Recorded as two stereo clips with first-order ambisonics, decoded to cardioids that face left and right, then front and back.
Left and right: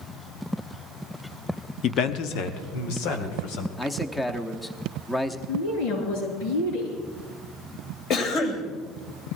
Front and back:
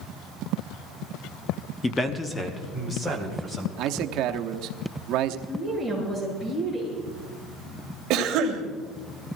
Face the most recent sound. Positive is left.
turn(degrees=140)